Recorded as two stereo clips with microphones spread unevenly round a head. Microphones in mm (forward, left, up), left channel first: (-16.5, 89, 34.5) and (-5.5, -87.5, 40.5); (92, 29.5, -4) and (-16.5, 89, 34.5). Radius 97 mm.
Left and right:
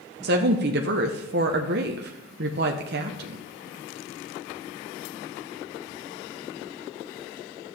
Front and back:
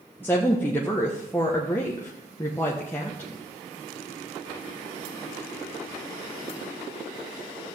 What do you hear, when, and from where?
0.2 s a woman speaking: 115° right, 0.7 m